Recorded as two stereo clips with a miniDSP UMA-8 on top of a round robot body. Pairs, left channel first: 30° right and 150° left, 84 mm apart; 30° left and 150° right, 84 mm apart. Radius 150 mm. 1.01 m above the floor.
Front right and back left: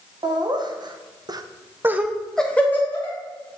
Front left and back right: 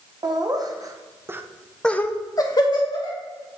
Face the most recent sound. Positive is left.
turn(degrees=30)